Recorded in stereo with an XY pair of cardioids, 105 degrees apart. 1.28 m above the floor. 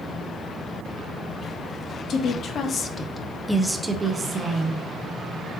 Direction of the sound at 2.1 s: 65° left.